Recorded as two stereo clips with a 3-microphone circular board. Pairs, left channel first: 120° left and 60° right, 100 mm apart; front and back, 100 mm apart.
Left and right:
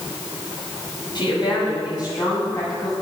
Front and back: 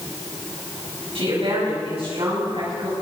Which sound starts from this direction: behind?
A woman speaking, at 1.1 s.